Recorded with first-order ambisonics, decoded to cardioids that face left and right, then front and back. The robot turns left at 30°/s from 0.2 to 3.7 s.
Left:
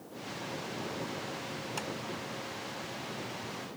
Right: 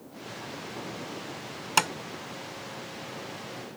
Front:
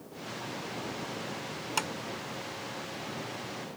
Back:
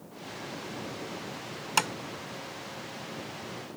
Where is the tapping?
110° right; by 1.9 s 115° right.